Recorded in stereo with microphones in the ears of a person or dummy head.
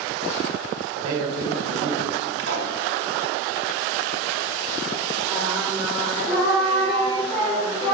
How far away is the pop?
About 1.4 m.